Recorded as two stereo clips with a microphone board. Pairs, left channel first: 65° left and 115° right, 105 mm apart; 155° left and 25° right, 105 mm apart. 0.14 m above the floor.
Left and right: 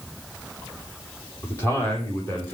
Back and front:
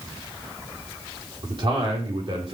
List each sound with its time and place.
1.4 s a man speaking: straight ahead, 7.5 m; by 2.5 s 5° right, 7.5 m